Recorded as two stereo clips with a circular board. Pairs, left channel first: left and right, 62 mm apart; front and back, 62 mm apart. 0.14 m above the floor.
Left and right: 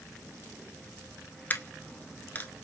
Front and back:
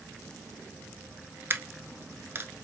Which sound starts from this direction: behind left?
A dropped coin, at 1.5 s.